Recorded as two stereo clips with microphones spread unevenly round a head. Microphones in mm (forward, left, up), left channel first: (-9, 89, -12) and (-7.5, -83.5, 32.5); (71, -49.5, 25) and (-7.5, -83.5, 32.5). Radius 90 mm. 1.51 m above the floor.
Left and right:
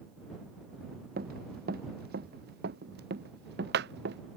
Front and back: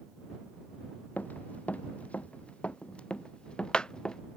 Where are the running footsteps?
50° right; by 4.2 s 60° right.